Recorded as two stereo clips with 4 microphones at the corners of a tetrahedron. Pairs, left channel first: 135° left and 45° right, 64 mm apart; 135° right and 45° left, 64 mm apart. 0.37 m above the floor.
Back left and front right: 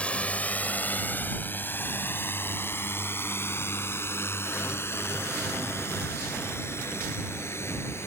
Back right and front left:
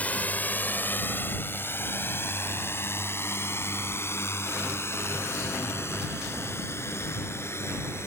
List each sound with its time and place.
0.0 s a drone: 175° right; by 8.1 s straight behind